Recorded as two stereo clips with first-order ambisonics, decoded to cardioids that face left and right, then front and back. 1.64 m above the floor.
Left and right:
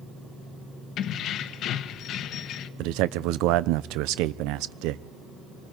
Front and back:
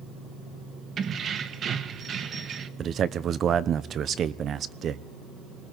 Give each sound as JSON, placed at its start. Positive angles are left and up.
{"t": 1.0, "sound": "keys jangling", "azimuth_deg": 125, "distance_m": 1.1}
{"t": 2.8, "sound": "a man speaking", "azimuth_deg": -120, "distance_m": 0.9}